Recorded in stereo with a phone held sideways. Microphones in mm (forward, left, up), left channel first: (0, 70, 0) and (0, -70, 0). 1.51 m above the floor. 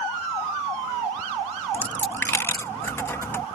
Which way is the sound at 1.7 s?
15° left (ahead or behind).